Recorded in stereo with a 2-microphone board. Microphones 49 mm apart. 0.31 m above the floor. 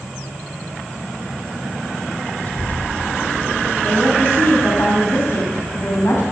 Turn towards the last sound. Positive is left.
turn(degrees=55)  # may be behind; listen again after turning